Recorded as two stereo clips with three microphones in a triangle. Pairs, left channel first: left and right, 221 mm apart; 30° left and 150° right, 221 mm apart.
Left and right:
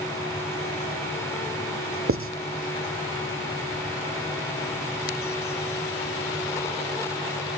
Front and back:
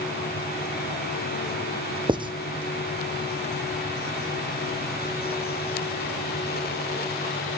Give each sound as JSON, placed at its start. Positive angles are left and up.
{"t": 2.1, "sound": "writing", "azimuth_deg": -80, "distance_m": 0.8}